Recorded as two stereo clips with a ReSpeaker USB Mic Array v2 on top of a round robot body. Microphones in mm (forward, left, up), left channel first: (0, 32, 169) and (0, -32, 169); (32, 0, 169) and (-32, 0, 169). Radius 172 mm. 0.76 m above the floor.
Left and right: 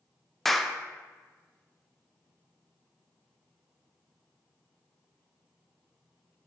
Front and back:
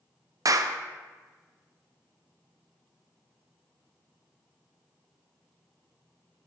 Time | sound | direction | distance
0.5 | a clap | straight behind | 0.5 m